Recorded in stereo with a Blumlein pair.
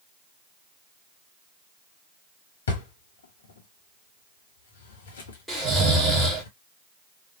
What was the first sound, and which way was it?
A drawer, 65° left.